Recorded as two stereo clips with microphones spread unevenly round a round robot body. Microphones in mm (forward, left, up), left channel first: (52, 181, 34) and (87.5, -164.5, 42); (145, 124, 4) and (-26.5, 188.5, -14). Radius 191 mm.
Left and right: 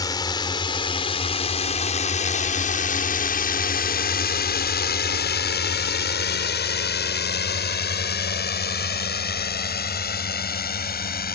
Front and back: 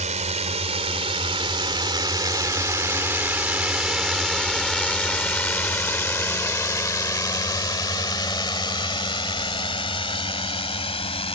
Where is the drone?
170° left; by 11.4 s 35° left.